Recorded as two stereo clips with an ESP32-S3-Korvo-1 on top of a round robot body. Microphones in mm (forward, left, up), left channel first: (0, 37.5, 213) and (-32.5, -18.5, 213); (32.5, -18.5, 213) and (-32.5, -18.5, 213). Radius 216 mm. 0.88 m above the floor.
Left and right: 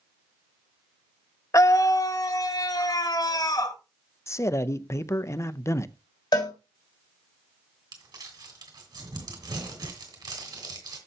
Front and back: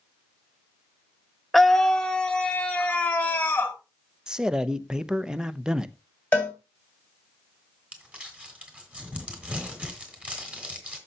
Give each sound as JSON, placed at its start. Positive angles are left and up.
{"t": 1.5, "sound": "a scream", "azimuth_deg": 90, "distance_m": 1.2}
{"t": 4.3, "sound": "a man speaking", "azimuth_deg": 105, "distance_m": 0.7}
{"t": 6.3, "sound": "a cowbell", "azimuth_deg": 70, "distance_m": 3.5}
{"t": 7.9, "sound": "crumpling", "azimuth_deg": -105, "distance_m": 2.5}